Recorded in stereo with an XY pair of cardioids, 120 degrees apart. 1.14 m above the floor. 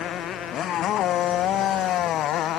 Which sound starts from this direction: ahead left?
A motorcycle, at 0.0 s.